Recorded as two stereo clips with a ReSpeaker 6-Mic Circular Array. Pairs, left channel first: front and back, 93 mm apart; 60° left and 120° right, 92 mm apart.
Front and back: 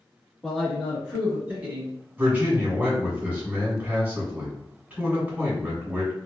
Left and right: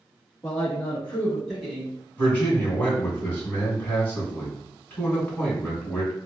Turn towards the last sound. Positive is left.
turn(degrees=115)